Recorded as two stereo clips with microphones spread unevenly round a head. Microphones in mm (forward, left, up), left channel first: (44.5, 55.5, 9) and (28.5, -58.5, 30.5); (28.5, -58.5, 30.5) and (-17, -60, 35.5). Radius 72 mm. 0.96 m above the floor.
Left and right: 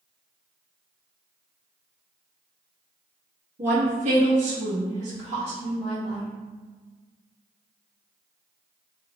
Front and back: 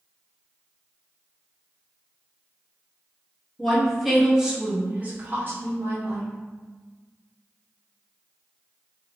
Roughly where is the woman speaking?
Right.